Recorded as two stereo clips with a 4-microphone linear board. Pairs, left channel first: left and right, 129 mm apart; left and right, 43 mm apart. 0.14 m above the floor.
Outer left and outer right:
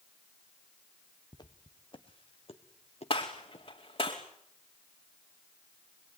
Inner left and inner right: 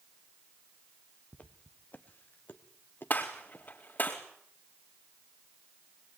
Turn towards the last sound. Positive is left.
turn(degrees=45)  # may be behind; listen again after turning